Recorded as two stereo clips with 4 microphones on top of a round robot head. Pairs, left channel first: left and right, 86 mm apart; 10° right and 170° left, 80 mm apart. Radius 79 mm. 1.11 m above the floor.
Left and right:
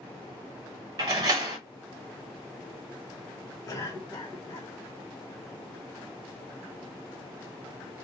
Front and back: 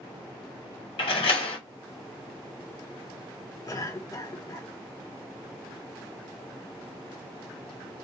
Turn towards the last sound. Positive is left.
turn(degrees=35)